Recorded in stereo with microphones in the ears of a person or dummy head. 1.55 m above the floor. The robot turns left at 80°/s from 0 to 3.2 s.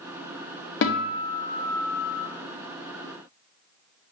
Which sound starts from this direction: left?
A guitar, at 0.8 s.